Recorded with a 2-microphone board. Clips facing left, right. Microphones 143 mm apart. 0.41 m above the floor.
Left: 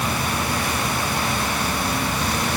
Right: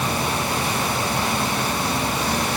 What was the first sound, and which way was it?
Only background noise.